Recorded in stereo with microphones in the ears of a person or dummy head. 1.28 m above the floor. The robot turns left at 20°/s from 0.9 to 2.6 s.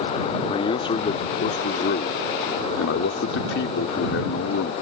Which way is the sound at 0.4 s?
145° left.